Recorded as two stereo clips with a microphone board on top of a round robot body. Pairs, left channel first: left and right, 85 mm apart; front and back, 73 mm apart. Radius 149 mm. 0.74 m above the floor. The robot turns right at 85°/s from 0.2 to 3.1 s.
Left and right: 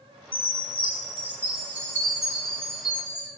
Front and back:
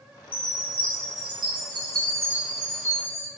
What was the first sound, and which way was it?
A chime, 70° left.